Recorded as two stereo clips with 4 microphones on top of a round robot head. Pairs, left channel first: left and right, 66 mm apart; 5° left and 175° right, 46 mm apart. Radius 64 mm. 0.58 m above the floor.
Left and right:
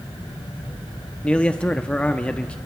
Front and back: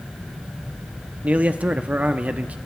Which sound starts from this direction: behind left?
A man speaking, at 1.2 s.